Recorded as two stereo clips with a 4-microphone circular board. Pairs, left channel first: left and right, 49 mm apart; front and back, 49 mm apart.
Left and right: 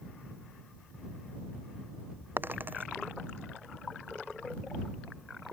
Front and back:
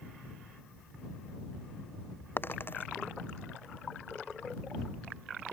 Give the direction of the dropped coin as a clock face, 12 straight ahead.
1 o'clock.